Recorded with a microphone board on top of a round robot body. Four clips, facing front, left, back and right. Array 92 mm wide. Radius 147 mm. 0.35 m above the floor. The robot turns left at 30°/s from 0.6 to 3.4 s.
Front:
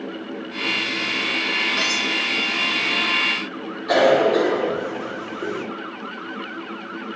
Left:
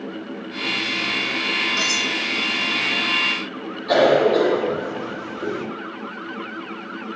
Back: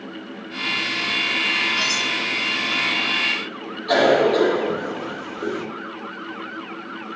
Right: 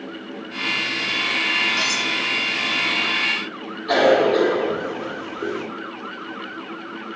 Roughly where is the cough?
Ahead.